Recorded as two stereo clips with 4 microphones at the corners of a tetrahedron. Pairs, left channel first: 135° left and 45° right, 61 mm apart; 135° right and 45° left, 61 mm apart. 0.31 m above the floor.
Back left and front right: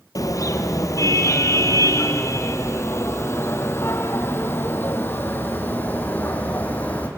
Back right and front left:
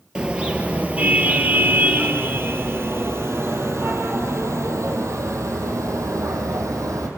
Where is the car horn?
120° left, 2.5 m; by 7.1 s 70° left, 5 m.